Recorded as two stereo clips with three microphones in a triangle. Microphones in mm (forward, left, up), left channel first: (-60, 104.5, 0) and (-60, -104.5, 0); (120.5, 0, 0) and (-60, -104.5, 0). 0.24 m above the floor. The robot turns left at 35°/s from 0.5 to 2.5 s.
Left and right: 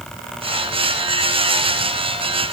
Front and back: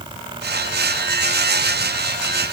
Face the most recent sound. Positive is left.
No sound to turn to.